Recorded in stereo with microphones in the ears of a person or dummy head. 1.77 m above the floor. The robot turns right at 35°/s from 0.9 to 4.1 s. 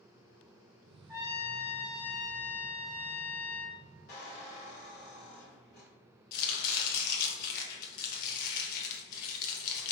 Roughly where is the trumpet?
Ahead right.